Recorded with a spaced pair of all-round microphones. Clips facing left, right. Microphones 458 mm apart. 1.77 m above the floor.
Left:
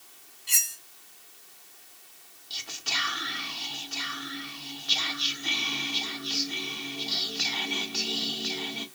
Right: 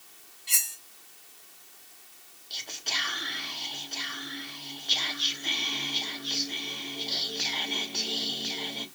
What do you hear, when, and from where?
0.5 s cutlery clinking: centre (ahead or behind), 1.9 m
2.5 s whispering: 25° left (ahead or behind), 0.6 m